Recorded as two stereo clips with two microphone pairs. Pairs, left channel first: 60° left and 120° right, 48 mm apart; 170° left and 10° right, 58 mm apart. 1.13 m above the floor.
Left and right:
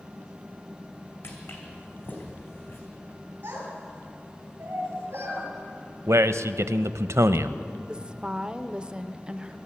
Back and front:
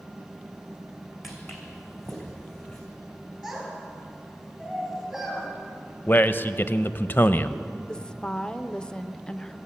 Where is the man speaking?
135° right, 0.6 m.